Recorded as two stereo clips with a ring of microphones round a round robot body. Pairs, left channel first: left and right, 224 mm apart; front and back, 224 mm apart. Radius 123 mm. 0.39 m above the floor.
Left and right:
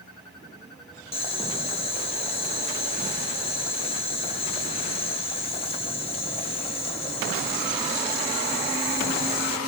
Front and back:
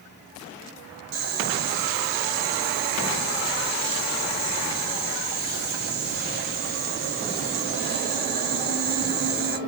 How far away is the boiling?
About 1.0 m.